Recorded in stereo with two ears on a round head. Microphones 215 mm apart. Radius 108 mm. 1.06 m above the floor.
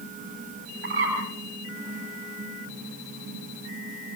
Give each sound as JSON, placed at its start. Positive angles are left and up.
{"t": 0.8, "sound": "a bird", "side_deg": -55, "distance_m": 8.5}